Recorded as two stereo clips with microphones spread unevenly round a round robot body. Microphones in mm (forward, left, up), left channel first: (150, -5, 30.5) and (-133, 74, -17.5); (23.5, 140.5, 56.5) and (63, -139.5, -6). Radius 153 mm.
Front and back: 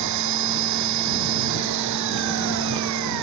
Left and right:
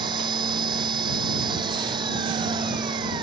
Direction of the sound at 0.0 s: 160° right.